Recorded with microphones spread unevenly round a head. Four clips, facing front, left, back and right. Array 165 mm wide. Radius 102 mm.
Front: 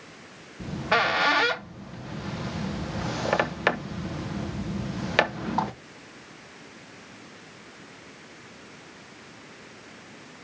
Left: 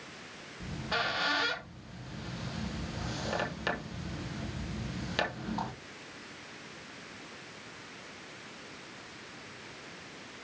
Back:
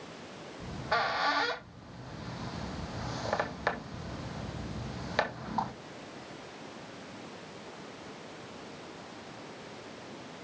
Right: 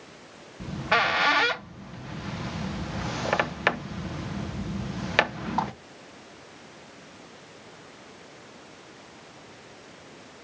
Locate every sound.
0.6 s a squeak: 20° right, 1.0 m